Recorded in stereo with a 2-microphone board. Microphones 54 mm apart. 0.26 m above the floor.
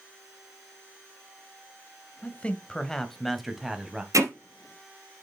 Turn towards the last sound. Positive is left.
turn(degrees=-80)